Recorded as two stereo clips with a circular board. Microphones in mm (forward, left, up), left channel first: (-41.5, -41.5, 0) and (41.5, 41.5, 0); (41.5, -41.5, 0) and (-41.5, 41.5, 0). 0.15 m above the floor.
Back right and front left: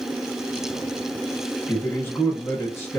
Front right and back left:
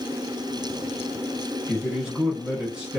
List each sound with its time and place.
1.7 s a man speaking: 155° right, 1.0 m